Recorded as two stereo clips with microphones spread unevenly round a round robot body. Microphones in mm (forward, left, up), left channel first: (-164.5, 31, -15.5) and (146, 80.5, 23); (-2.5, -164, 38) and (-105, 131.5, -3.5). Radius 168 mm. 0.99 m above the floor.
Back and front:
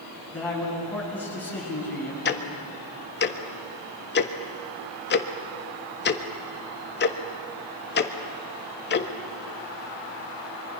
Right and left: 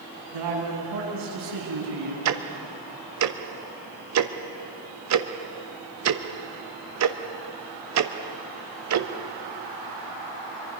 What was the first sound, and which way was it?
A man speaking, 105° left.